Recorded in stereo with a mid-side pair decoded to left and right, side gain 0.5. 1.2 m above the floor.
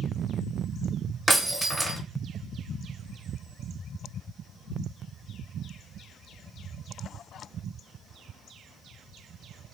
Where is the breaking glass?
15° right, 1.6 m.